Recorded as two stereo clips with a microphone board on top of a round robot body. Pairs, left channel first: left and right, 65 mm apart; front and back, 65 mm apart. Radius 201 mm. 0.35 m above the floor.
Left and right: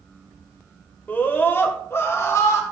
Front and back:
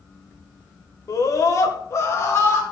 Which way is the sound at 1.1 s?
30° left.